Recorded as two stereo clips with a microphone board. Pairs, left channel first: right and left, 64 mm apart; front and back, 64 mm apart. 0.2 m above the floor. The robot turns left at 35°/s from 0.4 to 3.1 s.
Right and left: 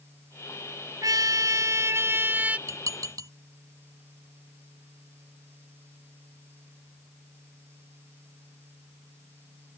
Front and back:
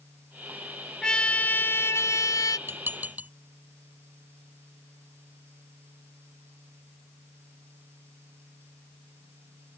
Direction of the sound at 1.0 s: 80° left.